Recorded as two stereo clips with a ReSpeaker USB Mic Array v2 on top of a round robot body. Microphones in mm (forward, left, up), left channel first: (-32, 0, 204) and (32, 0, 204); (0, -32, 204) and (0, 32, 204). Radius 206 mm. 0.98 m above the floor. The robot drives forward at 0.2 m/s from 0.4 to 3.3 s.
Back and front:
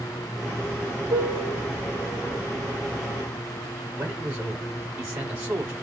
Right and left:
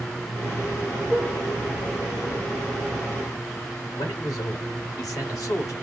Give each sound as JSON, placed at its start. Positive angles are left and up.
{"t": 1.1, "sound": "a piano", "azimuth_deg": -15, "distance_m": 0.9}
{"t": 4.0, "sound": "a man speaking", "azimuth_deg": -60, "distance_m": 3.5}